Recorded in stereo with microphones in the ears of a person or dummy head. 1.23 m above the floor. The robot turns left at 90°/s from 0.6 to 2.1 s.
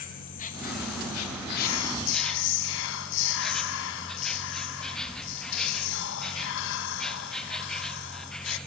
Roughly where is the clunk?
I don't hear a clunk.